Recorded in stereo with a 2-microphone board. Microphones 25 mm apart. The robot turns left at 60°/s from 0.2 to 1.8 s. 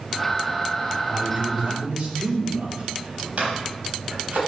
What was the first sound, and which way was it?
A man speaking, 50° right.